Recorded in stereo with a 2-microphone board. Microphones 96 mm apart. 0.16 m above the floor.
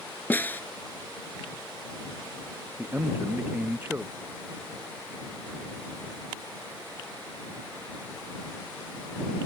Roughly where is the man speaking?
Centre.